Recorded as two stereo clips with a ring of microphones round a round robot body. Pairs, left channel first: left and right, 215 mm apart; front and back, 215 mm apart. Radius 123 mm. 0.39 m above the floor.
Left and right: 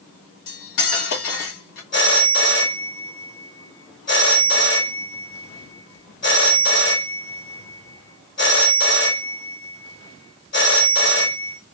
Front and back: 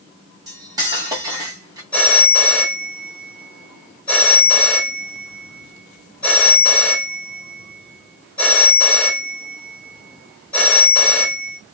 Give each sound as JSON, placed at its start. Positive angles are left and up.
{"t": 0.5, "sound": "cutlery clinking", "azimuth_deg": 105, "distance_m": 1.8}
{"t": 1.9, "sound": "a phone ringing", "azimuth_deg": 85, "distance_m": 1.3}